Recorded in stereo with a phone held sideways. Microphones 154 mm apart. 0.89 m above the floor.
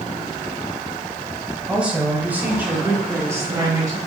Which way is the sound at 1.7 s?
5° right (ahead or behind).